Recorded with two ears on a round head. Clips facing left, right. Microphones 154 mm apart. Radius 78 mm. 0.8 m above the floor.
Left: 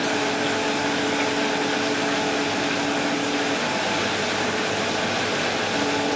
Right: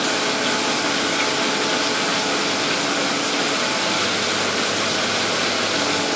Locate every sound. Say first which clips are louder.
0.0 s running water: even; 60° right (ahead or behind)